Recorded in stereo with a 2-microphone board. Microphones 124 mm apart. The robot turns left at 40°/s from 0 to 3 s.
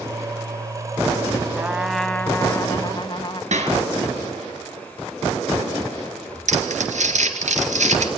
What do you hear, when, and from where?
1.6 s a trumpet: 165° right, 1.0 m; by 3.4 s 135° left, 1.0 m
3.5 s a clap: 70° right (ahead or behind), 4.5 m
6.5 s crumpling: 80° right, 2.5 m